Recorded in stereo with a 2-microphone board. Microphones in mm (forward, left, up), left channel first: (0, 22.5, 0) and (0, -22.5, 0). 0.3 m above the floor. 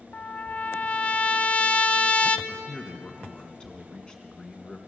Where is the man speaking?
20° left (ahead or behind), 3 m.